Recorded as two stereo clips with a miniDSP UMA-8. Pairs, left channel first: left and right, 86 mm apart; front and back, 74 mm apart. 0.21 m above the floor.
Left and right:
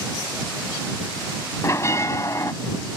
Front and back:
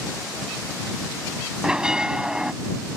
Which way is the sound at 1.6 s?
110° left.